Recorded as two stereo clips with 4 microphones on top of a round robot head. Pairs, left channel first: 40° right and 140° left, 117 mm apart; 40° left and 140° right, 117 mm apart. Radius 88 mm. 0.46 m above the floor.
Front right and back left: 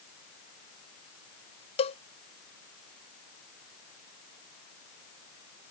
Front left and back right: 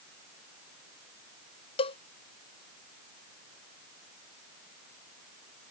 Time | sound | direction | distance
1.8 | a cowbell | straight ahead | ?